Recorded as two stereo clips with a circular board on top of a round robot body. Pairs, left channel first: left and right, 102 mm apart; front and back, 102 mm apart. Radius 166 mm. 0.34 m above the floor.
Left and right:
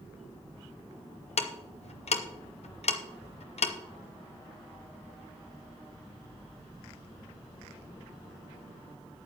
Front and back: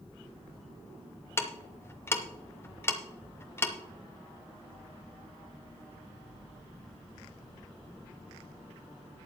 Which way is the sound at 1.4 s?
70° left.